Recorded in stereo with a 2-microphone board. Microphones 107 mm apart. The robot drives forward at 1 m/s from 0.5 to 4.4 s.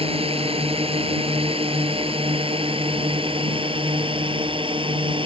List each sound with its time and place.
0.0 s a drone: 60° right (ahead or behind); by 5.3 s 55° right (ahead or behind)